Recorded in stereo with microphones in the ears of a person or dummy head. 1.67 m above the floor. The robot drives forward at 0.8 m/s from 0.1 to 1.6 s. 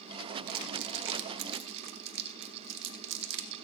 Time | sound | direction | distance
0.5 | crumpling | 55° right (ahead or behind) | 1.3 m